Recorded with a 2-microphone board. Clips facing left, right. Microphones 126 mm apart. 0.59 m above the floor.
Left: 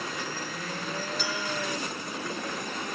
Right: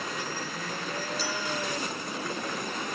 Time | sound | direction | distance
1.2 | a clink | 35° right (ahead or behind) | 6 m